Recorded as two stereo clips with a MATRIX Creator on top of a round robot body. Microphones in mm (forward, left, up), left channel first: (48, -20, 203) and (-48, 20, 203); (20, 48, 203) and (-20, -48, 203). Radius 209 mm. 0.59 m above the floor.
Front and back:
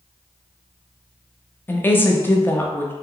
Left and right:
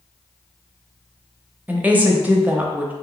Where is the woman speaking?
65° right, 1.0 m.